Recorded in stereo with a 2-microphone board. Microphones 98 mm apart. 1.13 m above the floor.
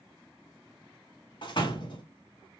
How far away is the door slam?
About 1.5 m.